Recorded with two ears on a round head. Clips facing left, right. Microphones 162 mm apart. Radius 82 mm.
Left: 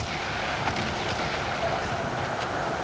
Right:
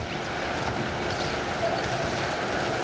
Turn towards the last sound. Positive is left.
No sound to turn to.